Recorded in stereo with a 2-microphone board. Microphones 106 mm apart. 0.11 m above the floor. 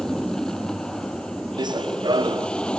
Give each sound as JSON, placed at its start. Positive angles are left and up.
{"t": 0.0, "sound": "an aircraft", "side_deg": 5}
{"t": 1.6, "sound": "running footsteps", "side_deg": -45}